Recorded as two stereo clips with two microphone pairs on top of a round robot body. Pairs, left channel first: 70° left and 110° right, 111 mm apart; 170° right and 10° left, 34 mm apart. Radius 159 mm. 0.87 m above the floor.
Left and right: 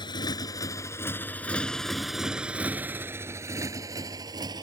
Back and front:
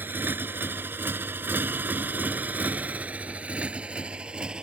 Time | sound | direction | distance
0.0 | a motorcycle | 20° left | ?